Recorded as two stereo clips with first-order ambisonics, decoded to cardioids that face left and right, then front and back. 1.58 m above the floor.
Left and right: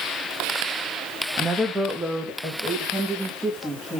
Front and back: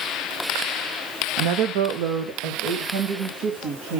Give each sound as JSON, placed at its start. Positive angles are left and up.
{"t": 1.4, "sound": "a woman speaking", "azimuth_deg": -170, "distance_m": 0.7}